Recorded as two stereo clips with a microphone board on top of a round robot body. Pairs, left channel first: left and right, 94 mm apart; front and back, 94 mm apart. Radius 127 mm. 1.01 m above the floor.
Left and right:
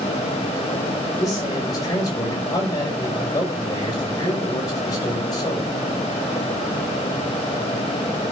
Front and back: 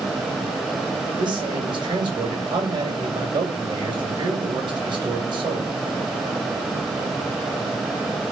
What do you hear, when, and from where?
1.2 s a man speaking: 140° left, 7 m